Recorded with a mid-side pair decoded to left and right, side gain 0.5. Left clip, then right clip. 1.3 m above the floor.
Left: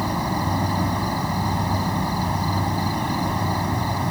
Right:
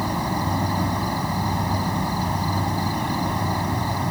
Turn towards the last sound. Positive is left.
turn(degrees=10)